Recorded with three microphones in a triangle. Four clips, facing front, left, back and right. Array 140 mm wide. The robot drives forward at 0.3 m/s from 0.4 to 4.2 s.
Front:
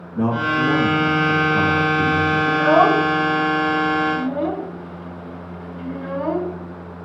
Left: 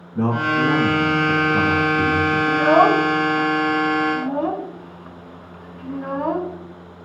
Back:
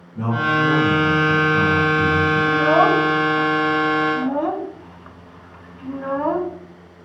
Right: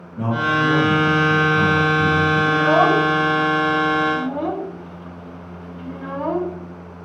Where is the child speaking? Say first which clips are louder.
Left 3 dB, front 2 dB; 55° left, 0.6 m; by 6.6 s 160° left, 0.7 m.